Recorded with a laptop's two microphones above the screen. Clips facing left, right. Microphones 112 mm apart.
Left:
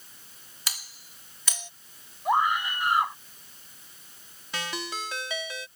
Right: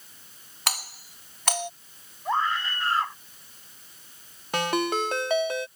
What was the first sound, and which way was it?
A doorbell, 65° right (ahead or behind).